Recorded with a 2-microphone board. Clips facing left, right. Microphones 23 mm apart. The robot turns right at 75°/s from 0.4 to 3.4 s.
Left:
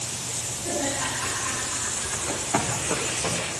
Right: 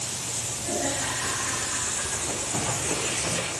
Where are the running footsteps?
65° left (ahead or behind), 7 m; by 3.4 s 15° left (ahead or behind), 7 m.